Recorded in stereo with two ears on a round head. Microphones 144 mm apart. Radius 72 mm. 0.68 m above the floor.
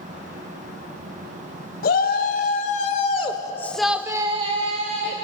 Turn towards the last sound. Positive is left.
turn(degrees=-55)  # may be behind; listen again after turning